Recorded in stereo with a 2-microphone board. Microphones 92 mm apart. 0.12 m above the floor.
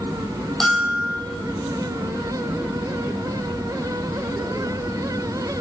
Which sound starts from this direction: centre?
A bell, at 0.6 s.